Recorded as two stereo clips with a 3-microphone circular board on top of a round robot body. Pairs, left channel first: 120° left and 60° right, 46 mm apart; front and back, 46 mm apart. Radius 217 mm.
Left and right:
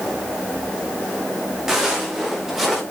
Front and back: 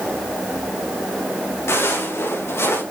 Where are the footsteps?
20° left, 6.5 m.